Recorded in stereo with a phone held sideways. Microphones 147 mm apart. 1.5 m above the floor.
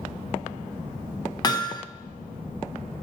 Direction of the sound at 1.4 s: 25° left (ahead or behind).